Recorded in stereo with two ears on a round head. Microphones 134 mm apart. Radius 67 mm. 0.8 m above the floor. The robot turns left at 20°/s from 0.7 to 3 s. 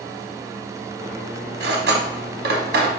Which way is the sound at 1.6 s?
75° right (ahead or behind).